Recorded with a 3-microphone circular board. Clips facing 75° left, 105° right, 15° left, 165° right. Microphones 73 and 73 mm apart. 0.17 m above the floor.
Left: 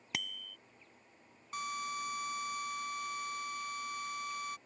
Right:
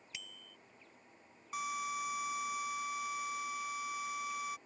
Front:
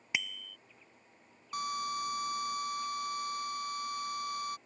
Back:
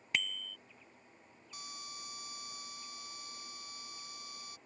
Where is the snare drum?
No snare drum in this recording.